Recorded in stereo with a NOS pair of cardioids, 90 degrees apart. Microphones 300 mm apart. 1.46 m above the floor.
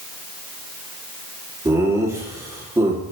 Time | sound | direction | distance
1.6 | laughter | 10° right | 2.5 m